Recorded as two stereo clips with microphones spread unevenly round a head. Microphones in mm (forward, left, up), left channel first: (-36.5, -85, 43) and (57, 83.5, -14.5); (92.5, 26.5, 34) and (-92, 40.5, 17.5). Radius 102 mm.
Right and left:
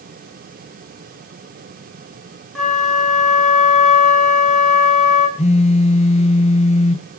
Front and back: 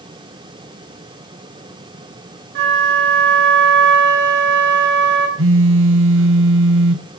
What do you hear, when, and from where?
2.5 s a flute: 150° left, 4 m
5.4 s a phone buzzing: straight behind, 1.1 m